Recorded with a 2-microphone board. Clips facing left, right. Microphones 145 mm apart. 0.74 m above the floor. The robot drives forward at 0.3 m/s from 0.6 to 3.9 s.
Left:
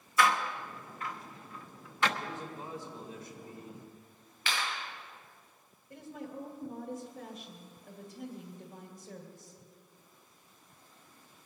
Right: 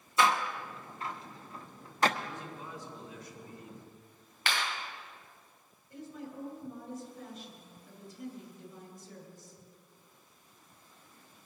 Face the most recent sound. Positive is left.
turn(degrees=50)  # may be behind; listen again after turning